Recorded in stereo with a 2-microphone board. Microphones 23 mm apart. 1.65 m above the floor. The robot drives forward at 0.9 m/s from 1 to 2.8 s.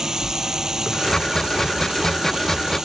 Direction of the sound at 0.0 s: 30° right (ahead or behind).